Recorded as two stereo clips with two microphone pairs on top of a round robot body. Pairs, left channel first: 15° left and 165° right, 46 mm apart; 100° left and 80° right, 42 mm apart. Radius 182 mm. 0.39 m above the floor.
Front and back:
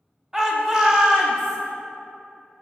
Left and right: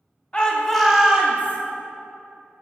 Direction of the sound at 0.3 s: 125° left.